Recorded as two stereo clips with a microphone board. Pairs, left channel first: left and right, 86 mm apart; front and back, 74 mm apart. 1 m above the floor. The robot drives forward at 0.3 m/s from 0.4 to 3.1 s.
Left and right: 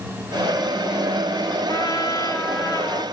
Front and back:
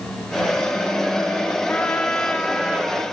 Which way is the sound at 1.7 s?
60° left.